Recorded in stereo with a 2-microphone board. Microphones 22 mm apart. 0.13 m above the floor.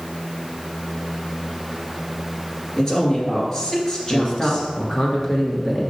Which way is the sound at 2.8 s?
25° left (ahead or behind).